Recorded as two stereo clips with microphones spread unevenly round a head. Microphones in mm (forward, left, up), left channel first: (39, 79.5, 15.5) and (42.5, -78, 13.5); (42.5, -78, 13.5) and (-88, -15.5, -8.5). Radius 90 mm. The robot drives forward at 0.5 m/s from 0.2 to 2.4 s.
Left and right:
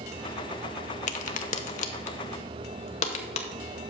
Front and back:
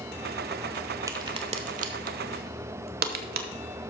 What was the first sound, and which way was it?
A crack, 80° left.